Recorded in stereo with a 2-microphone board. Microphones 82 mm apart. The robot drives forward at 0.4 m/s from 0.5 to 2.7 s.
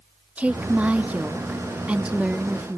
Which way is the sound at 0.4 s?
15° right (ahead or behind).